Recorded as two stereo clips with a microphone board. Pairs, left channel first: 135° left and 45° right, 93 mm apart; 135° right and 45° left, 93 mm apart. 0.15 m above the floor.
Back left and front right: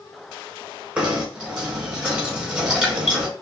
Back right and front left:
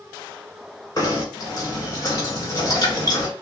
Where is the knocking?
115° right, 1.8 m.